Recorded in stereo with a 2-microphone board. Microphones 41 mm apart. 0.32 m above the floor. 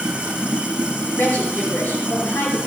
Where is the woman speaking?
65° left (ahead or behind), 2.5 m.